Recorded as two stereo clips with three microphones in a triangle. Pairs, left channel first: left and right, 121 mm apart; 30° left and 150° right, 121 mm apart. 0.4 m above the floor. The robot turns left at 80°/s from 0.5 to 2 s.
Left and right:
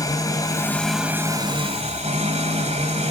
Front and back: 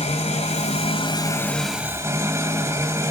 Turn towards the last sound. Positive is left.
turn(degrees=-85)